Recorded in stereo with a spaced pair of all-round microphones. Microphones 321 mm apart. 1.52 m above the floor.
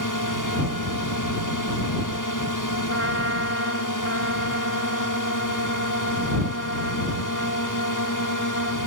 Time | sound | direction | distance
0.0 | a drone | 75° left (ahead or behind) | ?
2.9 | a trumpet | 45° right (ahead or behind) | ?